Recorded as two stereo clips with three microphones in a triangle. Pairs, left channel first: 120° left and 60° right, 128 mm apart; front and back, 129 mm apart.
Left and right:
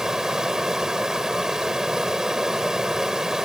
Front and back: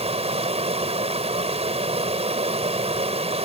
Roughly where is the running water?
Behind right.